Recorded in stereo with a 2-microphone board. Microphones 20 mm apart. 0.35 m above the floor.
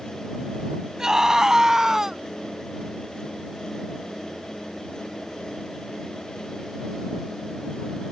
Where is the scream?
35° right (ahead or behind); by 2.2 s 30° right (ahead or behind).